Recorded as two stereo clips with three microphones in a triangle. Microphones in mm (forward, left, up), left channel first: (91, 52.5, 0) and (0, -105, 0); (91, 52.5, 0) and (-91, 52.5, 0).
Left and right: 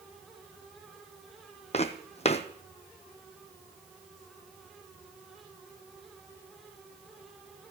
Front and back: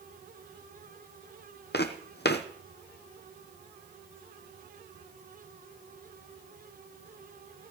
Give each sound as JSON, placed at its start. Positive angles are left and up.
{"t": 1.7, "sound": "footsteps", "azimuth_deg": 10, "distance_m": 1.0}